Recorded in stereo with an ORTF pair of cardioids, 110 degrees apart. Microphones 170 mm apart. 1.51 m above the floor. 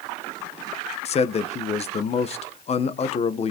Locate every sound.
1.1 s a man speaking: 40° left, 1.2 m